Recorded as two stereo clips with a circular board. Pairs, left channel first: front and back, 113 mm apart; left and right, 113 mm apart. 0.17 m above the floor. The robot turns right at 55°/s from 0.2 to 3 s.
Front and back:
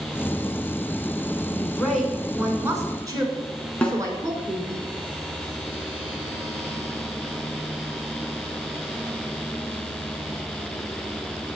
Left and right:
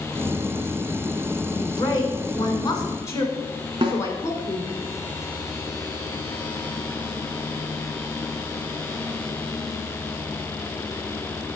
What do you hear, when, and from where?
1.5 s a woman speaking: 60° left, 1.4 m; by 4.8 s 140° left, 1.4 m
3.8 s a snare drum: 75° right, 1.1 m